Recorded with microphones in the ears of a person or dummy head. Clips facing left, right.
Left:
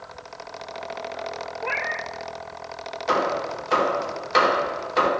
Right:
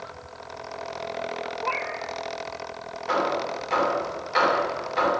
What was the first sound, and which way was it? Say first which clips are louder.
A cat meowing: even; 20° left (ahead or behind).